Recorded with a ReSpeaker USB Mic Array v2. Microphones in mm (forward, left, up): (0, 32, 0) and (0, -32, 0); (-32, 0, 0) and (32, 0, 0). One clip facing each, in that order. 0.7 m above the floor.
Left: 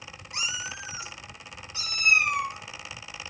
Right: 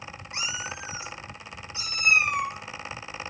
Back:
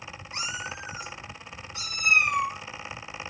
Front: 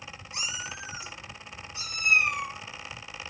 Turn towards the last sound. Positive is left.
turn(degrees=-155)